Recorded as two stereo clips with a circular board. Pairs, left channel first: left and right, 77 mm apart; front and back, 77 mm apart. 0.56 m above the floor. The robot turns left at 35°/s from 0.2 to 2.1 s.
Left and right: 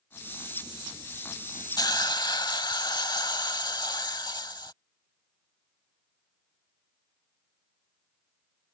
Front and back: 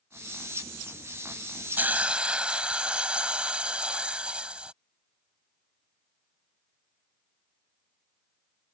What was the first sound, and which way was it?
A hiss, 115° left.